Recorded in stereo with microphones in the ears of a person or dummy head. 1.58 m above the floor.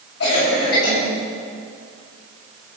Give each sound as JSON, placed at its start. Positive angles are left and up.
{"t": 0.2, "sound": "a cough", "side_deg": 70, "distance_m": 8.0}